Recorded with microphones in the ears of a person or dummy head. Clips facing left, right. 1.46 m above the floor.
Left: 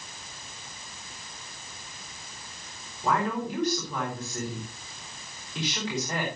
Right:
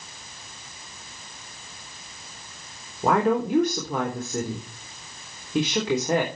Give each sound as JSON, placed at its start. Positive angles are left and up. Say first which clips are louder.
{"t": 3.0, "sound": "a woman speaking", "louder": "right 7 dB", "side_deg": -55, "distance_m": 4.0}